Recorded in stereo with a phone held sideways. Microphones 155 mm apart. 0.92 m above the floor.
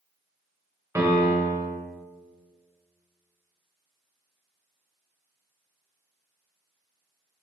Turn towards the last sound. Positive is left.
turn(degrees=-20)  # may be behind; listen again after turning